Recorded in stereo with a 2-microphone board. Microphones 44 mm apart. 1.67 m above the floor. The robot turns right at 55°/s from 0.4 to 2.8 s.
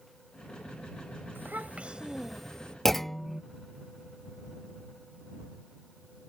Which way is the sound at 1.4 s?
55° right.